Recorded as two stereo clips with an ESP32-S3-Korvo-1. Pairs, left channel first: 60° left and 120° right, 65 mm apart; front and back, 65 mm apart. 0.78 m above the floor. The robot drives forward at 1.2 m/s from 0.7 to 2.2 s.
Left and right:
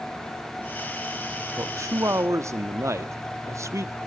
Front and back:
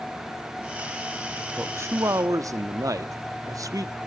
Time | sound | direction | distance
1.6 | a man speaking | 125° right | 0.6 m